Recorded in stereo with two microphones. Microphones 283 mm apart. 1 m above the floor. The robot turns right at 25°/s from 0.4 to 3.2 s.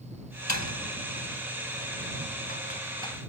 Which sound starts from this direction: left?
A door slam, at 0.5 s.